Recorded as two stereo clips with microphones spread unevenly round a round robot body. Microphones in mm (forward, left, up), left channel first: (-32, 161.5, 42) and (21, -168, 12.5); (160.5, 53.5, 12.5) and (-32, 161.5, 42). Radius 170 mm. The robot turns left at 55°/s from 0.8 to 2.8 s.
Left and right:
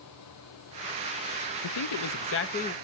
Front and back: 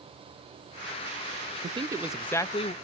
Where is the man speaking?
85° left, 0.6 m; by 2.7 s 25° left, 0.6 m.